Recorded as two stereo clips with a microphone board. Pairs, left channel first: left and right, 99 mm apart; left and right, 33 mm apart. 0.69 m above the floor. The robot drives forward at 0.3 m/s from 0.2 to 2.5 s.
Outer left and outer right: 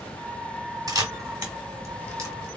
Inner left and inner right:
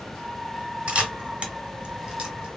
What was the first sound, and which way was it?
A camera shutter, 35° right (ahead or behind).